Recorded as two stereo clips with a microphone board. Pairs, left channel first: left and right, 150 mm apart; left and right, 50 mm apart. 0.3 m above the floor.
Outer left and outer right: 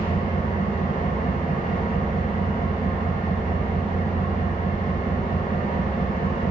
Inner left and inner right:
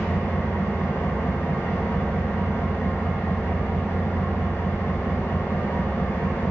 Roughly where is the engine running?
Left.